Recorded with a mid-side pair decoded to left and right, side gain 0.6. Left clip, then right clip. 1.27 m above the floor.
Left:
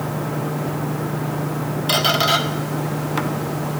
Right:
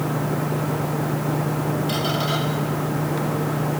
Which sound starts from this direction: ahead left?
A squeak, at 1.9 s.